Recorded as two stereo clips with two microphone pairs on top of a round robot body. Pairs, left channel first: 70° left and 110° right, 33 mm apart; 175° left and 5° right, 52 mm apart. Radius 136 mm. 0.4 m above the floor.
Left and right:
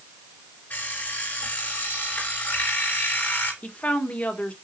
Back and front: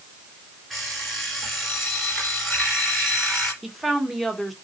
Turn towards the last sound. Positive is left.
turn(degrees=95)